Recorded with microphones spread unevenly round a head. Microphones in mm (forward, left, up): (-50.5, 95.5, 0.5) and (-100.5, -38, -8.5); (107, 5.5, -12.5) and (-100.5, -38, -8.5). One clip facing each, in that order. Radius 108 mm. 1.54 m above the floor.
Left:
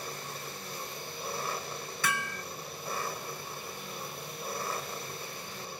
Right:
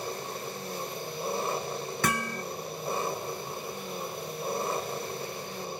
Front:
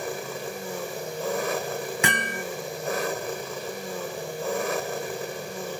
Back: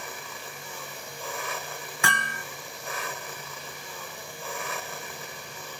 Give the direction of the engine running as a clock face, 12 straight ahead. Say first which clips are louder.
Right 6 dB, front 11 dB; 1 o'clock.